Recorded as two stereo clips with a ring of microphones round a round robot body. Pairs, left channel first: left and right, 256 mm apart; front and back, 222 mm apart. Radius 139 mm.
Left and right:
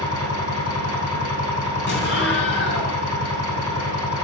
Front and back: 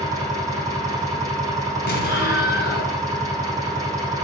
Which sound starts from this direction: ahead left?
An explosion, at 1.9 s.